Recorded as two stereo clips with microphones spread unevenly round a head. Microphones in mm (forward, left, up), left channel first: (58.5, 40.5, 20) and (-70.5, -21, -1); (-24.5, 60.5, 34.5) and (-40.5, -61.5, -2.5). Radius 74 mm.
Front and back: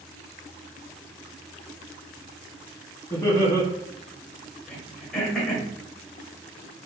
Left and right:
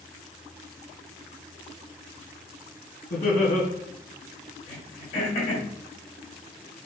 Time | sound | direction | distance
3.1 | laughter | 90° left | 2.0 m
4.7 | throat clearing | 110° left | 2 m